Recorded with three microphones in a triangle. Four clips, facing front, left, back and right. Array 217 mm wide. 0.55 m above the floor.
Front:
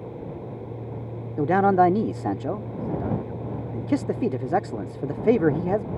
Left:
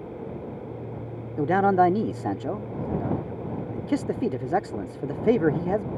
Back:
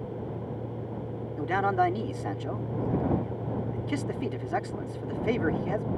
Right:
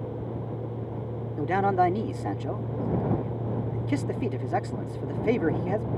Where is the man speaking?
25° left.